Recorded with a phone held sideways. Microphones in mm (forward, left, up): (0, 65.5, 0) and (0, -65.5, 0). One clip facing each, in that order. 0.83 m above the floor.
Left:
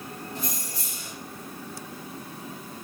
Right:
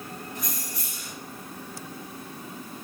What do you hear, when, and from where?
0.3 s keys jangling: 30° left (ahead or behind), 1.3 m